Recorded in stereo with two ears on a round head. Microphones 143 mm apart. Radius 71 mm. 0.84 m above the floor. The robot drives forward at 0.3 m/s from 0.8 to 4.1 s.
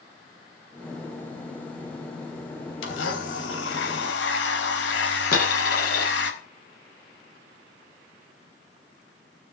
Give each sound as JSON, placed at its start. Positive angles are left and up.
{"t": 2.8, "sound": "a blender", "side_deg": 85, "distance_m": 3.5}
{"t": 5.3, "sound": "a dropped coin", "side_deg": 65, "distance_m": 7.0}